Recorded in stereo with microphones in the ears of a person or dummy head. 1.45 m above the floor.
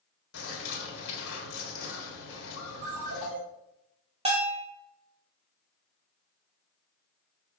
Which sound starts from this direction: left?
A bird, at 0.3 s.